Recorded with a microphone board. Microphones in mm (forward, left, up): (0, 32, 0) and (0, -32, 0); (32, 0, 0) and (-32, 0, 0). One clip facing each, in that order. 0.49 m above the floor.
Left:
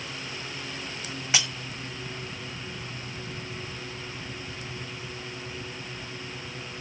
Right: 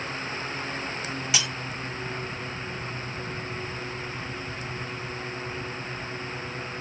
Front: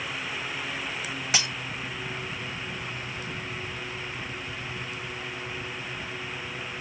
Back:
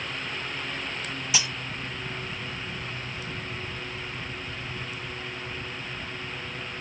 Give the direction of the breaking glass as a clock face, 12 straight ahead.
11 o'clock.